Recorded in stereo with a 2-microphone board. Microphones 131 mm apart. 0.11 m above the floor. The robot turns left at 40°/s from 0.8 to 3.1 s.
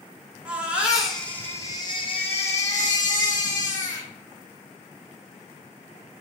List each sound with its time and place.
0.5 s a baby crying: 170° right, 2 m; by 4.1 s 95° left, 2 m